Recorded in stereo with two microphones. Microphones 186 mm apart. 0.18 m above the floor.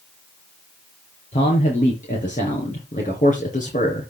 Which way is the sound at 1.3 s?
40° left (ahead or behind).